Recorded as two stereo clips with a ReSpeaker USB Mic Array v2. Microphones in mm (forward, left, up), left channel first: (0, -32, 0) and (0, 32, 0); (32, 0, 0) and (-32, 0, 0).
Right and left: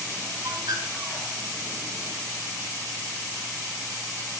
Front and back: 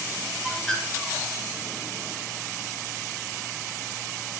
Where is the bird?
85° left, 4.5 m.